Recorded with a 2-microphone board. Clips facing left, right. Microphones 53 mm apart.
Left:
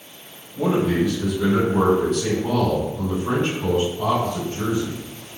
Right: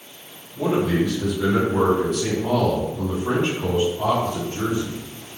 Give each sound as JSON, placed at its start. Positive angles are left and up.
{"t": 0.6, "sound": "a man speaking", "side_deg": 20, "distance_m": 1.7}